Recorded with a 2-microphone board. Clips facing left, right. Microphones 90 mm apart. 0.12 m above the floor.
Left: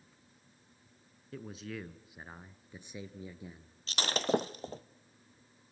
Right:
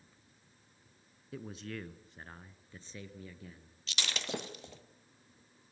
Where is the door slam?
I don't hear a door slam.